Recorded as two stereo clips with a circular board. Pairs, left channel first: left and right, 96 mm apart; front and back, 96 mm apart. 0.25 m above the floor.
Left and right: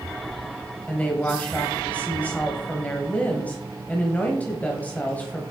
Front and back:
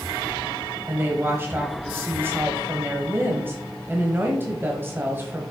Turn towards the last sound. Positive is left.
turn(degrees=145)